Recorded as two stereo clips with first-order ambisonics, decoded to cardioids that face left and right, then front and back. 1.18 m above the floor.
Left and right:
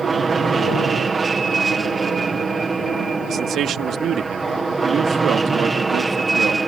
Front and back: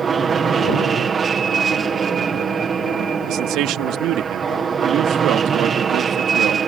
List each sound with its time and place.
0.0 s an aircraft: 145° right; by 6.7 s 155° right
3.3 s a man speaking: 145° right